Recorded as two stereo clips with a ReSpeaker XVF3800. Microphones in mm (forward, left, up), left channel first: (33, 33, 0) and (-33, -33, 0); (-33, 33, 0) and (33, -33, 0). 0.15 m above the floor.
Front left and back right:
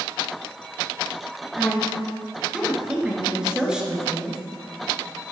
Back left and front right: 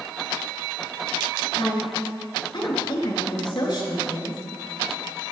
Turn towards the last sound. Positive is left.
turn(degrees=145)